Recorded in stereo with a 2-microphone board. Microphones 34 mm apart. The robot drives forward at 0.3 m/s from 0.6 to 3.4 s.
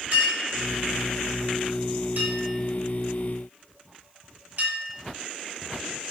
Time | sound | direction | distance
0.1 | a clink | 45° right (ahead or behind) | 1.6 m